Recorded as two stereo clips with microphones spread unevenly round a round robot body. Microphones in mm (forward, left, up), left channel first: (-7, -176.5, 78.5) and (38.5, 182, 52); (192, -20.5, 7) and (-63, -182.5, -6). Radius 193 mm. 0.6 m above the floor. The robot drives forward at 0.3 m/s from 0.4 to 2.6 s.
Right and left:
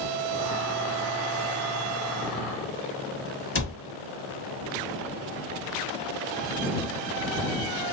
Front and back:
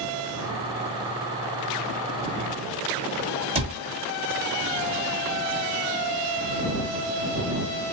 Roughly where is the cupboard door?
Right.